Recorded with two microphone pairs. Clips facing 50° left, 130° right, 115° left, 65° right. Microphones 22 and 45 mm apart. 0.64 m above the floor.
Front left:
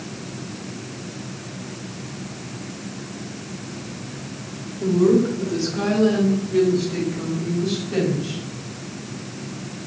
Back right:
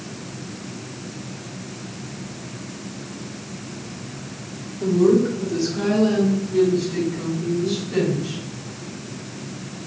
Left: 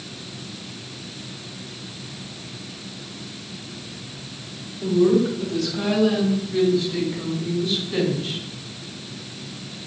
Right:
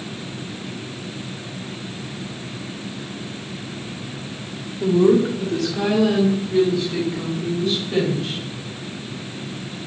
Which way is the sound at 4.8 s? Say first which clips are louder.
Even, right 2 dB; 45° right.